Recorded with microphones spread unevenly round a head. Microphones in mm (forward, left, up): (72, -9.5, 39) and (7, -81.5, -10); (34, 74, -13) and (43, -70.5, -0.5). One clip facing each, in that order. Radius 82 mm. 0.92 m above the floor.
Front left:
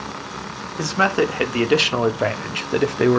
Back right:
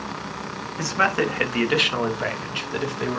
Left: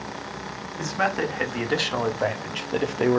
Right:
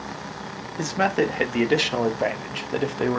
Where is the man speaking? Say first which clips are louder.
Front left 3 dB, right 4 dB; 30° right, 1.7 m; by 3.2 s 20° left, 1.3 m.